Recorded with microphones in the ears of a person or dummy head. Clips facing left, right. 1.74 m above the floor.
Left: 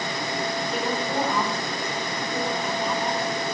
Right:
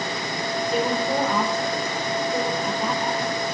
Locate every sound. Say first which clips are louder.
0.7 s a woman speaking: right 6 dB; 65° right (ahead or behind), 5 m